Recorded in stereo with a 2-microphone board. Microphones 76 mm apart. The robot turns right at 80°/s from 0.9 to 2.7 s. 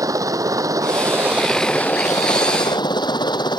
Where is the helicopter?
50° right; by 3.6 s 90° left.